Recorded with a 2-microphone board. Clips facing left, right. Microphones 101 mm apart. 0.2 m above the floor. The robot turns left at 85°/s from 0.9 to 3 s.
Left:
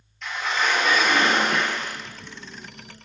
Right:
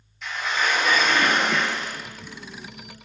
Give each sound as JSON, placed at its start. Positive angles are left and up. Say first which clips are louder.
{"t": 0.2, "sound": "a sliding door", "louder": "left 1 dB", "azimuth_deg": -175, "distance_m": 1.7}